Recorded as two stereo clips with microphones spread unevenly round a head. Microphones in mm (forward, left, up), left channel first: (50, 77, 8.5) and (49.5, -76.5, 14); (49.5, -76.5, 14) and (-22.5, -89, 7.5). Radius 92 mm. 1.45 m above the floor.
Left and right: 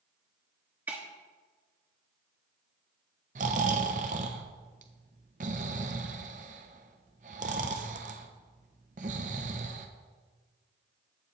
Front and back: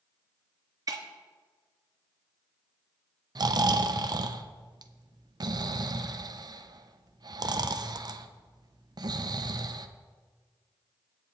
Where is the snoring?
140° right, 0.8 m.